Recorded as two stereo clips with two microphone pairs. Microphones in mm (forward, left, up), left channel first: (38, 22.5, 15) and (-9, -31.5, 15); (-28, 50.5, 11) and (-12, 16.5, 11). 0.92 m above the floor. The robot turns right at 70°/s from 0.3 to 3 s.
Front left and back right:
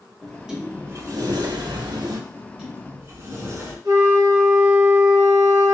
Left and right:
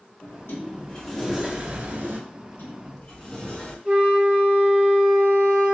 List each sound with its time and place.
0.2 s a sliding door: 135° left, 0.8 m; by 2.2 s 90° right, 0.8 m
2.3 s a sliding door: 135° left, 1.9 m; by 3.8 s 175° right, 1.9 m
3.9 s a flute: 120° right, 1.1 m